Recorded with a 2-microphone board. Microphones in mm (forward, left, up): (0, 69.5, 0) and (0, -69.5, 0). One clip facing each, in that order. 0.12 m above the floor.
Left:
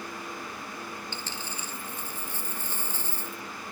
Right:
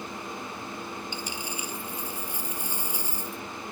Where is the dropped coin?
10° right (ahead or behind).